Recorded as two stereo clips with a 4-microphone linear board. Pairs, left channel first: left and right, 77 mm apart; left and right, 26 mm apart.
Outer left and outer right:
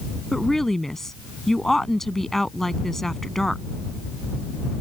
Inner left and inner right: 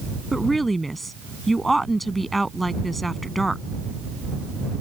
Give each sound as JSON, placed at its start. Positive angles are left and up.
{"t": 0.3, "sound": "a woman speaking", "side_deg": 5}